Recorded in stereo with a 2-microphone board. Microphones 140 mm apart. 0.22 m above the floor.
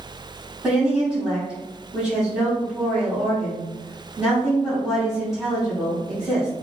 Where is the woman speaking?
5° right (ahead or behind), 1.3 m.